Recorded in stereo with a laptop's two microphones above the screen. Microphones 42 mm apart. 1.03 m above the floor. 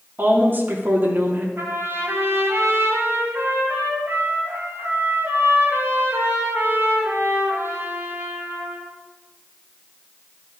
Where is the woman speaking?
50° right (ahead or behind), 3 m.